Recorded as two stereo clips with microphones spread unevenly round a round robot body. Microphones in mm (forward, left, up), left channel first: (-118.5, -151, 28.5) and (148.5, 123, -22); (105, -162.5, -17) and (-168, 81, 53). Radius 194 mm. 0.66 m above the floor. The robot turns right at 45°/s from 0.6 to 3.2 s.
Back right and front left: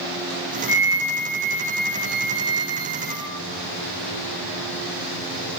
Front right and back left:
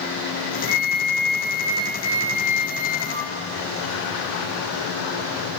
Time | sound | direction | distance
0.7 | a flute | 95° right | 1.6 m